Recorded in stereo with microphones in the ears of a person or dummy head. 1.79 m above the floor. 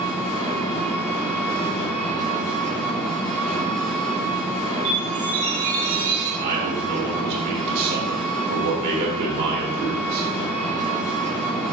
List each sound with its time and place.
0.0 s an engine running: 5° left (ahead or behind), 1.8 m
4.8 s a chime: 55° right (ahead or behind), 2 m
6.4 s a man speaking: 50° right (ahead or behind), 3 m